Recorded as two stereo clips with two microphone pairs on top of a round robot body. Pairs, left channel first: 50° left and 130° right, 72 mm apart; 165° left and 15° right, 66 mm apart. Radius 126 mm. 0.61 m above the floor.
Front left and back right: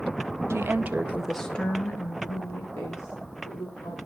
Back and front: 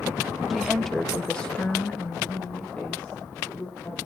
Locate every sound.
0.5 s a woman speaking: 100° right, 0.9 m; by 4.0 s 90° left, 2.5 m